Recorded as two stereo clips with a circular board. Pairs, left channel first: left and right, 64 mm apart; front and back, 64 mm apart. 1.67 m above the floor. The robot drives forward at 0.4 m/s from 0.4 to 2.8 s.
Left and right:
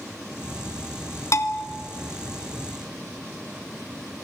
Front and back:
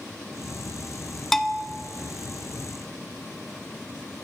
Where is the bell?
85° left, 1.4 m; by 1.6 s 90° left, 1.4 m.